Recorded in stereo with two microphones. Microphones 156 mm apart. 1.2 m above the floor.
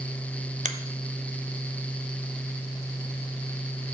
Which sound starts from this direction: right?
A finger snap, at 0.7 s.